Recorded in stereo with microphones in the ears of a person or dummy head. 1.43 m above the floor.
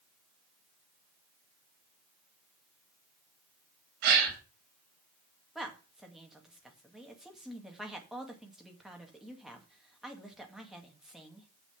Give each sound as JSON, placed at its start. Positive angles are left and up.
{"t": 4.0, "sound": "a gasp", "side_deg": -55, "distance_m": 3.0}
{"t": 5.5, "sound": "a woman speaking", "side_deg": 5, "distance_m": 2.0}